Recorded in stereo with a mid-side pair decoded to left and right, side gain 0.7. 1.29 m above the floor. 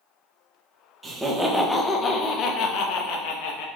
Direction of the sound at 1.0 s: 15° right.